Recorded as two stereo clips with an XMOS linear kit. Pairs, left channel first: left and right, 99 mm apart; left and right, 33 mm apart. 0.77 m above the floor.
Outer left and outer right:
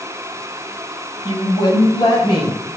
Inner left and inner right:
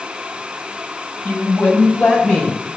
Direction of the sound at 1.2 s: 45° left (ahead or behind).